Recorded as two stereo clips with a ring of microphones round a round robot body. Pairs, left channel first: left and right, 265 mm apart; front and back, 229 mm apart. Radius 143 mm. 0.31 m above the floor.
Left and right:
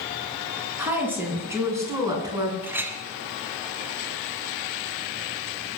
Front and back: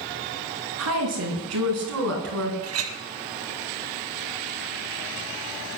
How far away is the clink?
About 1.5 m.